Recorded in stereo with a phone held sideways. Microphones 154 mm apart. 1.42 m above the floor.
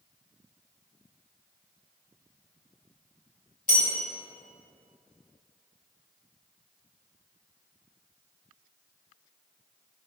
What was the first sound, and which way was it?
A bell, 55° left (ahead or behind).